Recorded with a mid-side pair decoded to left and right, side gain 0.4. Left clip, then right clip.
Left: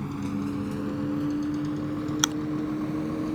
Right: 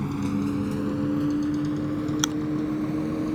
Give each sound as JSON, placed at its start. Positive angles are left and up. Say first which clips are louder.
{"t": 0.0, "sound": "a vehicle", "louder": "right 4 dB", "azimuth_deg": -30}
{"t": 2.2, "sound": "chewing", "louder": "left 2 dB", "azimuth_deg": 20}